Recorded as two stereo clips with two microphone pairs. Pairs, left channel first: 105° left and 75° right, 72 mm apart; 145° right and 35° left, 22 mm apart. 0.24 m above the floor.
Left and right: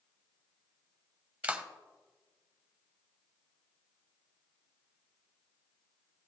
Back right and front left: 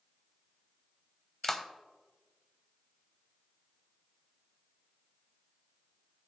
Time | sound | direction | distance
1.4 | a clap | 80° right | 0.9 m